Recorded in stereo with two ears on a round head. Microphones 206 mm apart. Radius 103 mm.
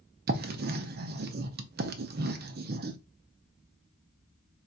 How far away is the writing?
About 0.5 m.